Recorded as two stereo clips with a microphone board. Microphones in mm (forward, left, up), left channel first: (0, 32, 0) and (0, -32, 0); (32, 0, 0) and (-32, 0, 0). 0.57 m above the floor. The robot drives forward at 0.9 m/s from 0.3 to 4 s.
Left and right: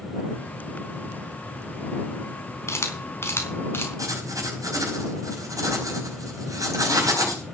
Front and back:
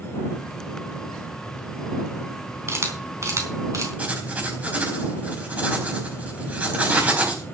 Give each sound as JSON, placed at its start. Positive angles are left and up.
{"t": 2.7, "sound": "a camera shutter", "azimuth_deg": 135, "distance_m": 4.0}
{"t": 4.0, "sound": "writing", "azimuth_deg": -115, "distance_m": 4.0}